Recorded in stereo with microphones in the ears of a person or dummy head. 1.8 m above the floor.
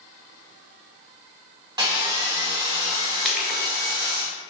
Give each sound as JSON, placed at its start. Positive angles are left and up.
{"t": 1.8, "sound": "sawing", "side_deg": -20, "distance_m": 0.5}
{"t": 3.2, "sound": "crushing", "side_deg": 0, "distance_m": 0.8}